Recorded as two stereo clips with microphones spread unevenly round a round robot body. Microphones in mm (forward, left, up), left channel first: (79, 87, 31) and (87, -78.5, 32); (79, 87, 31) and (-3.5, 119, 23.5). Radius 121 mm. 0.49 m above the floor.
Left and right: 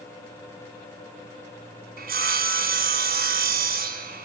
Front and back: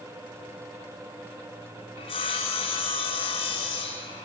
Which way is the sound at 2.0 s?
65° right.